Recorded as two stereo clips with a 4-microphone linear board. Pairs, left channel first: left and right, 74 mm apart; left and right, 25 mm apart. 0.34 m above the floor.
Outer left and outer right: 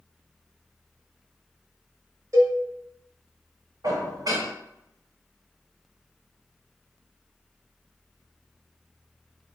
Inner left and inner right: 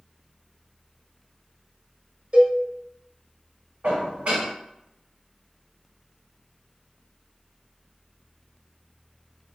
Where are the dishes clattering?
55° right (ahead or behind), 1.3 m.